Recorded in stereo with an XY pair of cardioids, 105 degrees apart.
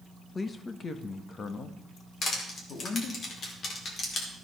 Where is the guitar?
No guitar in this recording.